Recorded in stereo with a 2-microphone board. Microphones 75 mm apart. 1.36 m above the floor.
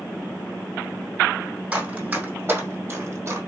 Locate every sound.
1.7 s running footsteps: 20° right (ahead or behind), 2.5 m; by 3.4 s 40° right (ahead or behind), 1.8 m